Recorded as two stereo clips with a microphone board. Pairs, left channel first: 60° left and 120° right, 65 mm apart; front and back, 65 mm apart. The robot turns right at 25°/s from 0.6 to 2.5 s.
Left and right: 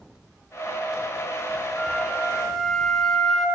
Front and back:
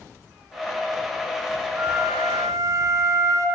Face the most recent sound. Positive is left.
turn(degrees=145)